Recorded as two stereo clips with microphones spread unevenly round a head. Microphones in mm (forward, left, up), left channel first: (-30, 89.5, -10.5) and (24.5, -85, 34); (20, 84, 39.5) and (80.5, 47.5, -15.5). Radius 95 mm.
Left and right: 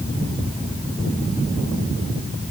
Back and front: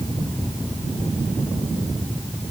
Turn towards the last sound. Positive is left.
No sound to turn to.